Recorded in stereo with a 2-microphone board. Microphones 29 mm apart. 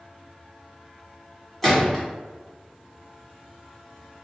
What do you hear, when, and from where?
1.6 s a gunshot: 10° left (ahead or behind), 1.3 m